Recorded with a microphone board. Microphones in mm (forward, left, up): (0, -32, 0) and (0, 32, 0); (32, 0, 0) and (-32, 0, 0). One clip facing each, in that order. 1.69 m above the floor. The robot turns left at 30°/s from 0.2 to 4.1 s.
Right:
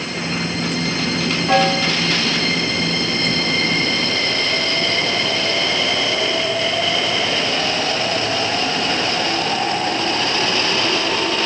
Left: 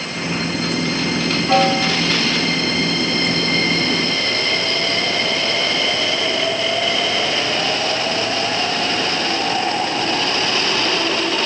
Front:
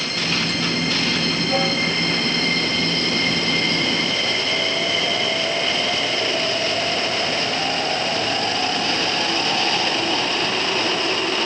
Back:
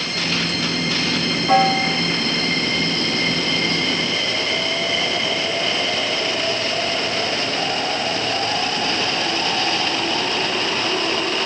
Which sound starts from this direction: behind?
A piano, at 1.5 s.